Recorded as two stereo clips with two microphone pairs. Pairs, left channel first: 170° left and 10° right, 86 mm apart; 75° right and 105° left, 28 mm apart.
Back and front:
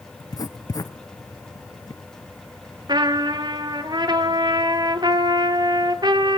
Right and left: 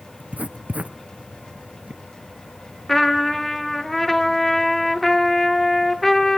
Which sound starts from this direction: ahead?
A trumpet, at 2.9 s.